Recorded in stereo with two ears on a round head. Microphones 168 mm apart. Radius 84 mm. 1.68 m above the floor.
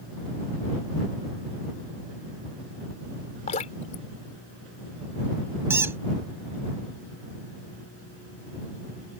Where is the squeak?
10° right (ahead or behind).